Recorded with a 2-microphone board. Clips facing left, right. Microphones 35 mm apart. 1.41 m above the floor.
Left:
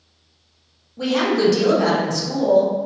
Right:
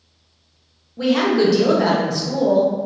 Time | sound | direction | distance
1.0 | a woman speaking | 15° right (ahead or behind) | 0.9 m